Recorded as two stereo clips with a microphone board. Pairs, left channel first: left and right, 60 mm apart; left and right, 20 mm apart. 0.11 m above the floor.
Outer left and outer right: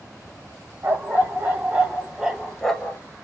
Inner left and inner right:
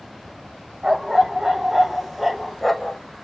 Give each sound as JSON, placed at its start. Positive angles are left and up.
{"t": 0.8, "sound": "a dog barking", "side_deg": -30, "distance_m": 1.6}